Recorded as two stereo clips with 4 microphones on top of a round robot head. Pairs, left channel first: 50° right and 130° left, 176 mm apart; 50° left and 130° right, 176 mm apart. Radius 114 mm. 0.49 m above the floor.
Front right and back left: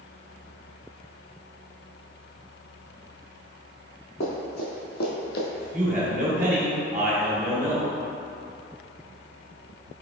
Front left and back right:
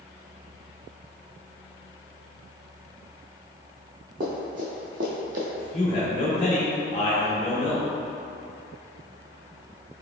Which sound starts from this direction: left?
A man speaking, at 5.5 s.